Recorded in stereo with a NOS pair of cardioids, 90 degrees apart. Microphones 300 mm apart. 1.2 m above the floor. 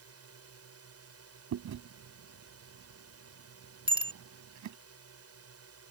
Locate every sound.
0.0 s a drone: 55° right
1.5 s chewing: 70° right
3.9 s a bicycle bell: 20° right